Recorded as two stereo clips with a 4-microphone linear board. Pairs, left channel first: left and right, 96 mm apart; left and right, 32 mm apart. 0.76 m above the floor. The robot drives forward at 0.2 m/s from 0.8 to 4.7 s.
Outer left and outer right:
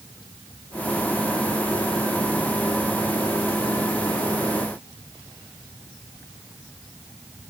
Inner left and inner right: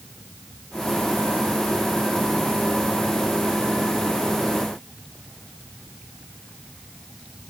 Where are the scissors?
No scissors in this recording.